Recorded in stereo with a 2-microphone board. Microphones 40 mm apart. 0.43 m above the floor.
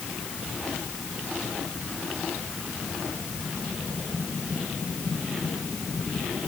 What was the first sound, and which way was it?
Only background noise.